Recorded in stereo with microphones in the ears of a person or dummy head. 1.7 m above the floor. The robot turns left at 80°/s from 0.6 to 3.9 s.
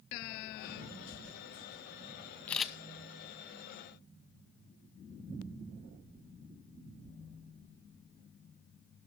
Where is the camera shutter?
10° left (ahead or behind), 0.9 m; by 2.7 s 10° right (ahead or behind), 0.9 m.